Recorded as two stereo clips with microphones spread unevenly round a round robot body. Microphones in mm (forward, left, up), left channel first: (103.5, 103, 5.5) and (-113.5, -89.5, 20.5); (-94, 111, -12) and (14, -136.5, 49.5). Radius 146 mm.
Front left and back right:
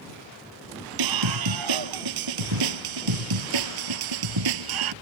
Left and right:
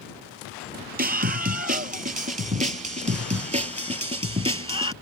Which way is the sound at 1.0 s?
125° right.